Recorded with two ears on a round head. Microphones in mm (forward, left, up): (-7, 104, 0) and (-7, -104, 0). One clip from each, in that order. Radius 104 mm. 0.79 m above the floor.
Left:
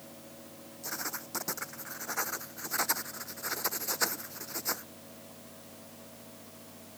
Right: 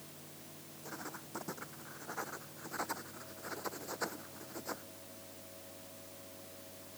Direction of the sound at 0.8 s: 60° left (ahead or behind).